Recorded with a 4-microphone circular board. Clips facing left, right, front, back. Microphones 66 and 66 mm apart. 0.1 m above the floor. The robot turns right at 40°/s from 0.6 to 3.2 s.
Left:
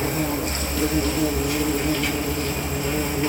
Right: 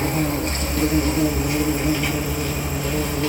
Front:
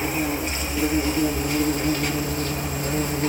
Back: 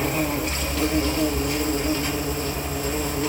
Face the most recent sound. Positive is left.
turn(degrees=20)